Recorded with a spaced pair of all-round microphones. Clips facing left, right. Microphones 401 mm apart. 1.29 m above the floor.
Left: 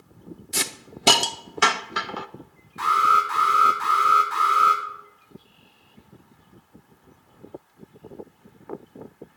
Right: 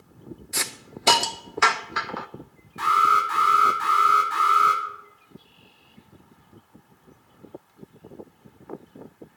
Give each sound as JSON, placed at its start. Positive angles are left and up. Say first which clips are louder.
{"t": 0.5, "sound": "a hiss", "louder": "left 3 dB", "side_deg": 50, "distance_m": 0.5}
{"t": 2.8, "sound": "an alarm", "louder": "even", "side_deg": -45, "distance_m": 4.0}